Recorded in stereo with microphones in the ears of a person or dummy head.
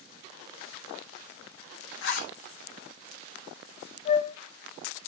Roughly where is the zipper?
Left.